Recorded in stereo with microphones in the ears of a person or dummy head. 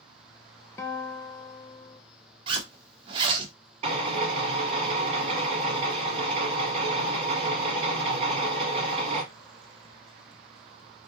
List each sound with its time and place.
0.8 s a guitar: 15° left (ahead or behind), 0.5 m
2.5 s a zipper: 30° right (ahead or behind), 1.1 m
3.8 s a drill: 35° right (ahead or behind), 2.5 m